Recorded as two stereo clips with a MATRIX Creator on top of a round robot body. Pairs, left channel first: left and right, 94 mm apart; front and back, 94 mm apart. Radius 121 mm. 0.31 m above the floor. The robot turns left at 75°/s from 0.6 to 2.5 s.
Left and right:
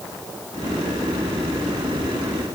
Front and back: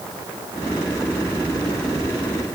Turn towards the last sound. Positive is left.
No sound to turn to.